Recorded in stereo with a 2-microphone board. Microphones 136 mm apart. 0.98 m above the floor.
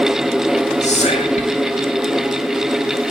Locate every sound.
0.8 s whispering: 55° left (ahead or behind), 1.9 m